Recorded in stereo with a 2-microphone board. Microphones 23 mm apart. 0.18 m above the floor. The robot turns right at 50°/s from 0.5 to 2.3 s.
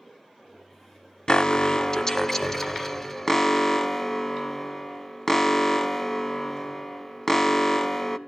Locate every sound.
1.3 s an alarm: 100° left, 0.8 m; by 8.2 s 150° left, 0.8 m